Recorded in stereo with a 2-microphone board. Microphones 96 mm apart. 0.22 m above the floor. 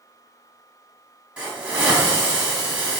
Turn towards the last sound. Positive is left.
turn(degrees=-10)  # may be behind; listen again after turning